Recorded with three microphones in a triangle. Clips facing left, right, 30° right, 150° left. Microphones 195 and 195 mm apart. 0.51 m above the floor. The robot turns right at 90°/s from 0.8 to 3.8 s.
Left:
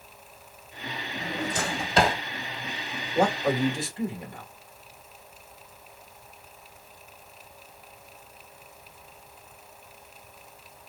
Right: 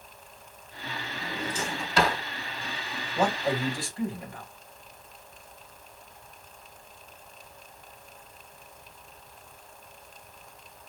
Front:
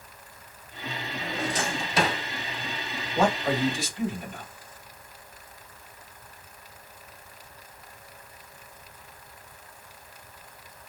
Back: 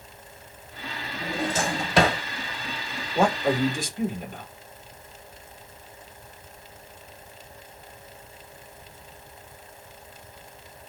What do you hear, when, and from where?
1.2 s a drawer: 75° left, 1.4 m; by 2.2 s 165° left, 1.4 m
3.1 s a man speaking: 95° left, 1.8 m; by 4.5 s 150° left, 1.8 m